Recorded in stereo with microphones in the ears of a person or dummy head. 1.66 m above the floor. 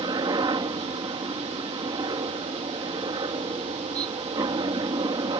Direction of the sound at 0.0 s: 20° right (ahead or behind).